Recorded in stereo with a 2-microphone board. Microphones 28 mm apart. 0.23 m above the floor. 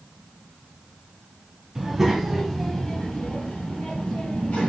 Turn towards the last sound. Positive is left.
turn(degrees=55)  # may be behind; listen again after turning